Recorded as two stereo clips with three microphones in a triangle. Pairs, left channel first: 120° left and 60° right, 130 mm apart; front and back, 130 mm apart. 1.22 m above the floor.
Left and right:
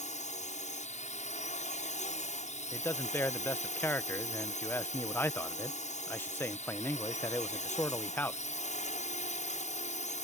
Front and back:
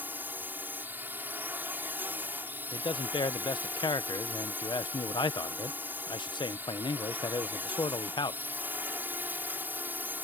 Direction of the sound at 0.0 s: 105° left.